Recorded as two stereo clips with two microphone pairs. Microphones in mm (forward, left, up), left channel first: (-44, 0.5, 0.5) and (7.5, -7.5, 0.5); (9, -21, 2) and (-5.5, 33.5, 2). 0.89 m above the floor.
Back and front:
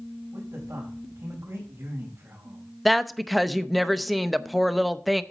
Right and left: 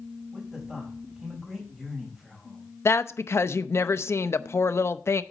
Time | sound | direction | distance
0.3 | a man speaking | 25° left | 4 m
2.9 | a woman speaking | 100° right | 0.6 m